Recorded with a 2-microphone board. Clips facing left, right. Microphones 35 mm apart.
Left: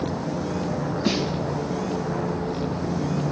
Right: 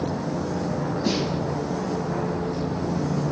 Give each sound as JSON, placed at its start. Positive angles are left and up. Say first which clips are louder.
{"t": 1.1, "sound": "a snare drum", "louder": "left 1 dB", "side_deg": 25, "distance_m": 5.0}